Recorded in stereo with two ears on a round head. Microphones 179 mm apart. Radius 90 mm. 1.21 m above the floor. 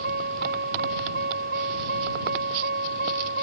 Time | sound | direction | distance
0.0 | a vehicle | 50° right (ahead or behind) | ?